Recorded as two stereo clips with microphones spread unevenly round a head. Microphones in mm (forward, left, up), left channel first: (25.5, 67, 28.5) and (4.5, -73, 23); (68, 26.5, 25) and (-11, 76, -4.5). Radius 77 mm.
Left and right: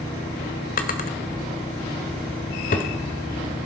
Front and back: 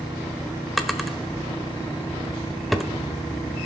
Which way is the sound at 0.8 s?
50° left.